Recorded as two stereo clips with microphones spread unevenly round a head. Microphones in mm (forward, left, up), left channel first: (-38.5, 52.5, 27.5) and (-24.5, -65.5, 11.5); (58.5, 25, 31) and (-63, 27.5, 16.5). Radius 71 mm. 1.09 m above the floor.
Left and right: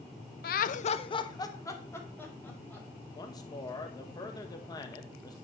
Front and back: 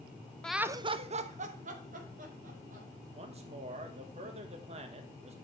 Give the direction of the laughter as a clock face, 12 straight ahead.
9 o'clock.